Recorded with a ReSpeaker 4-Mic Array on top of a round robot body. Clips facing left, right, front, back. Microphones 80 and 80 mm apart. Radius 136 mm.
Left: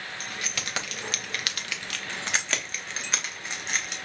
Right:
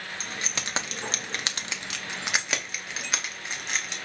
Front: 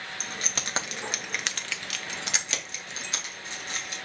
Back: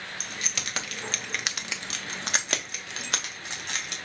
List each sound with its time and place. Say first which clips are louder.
0.2 s keys jangling: right 1 dB, front 3 dB; 30° right, 1.0 m; by 4.0 s straight behind, 1.6 m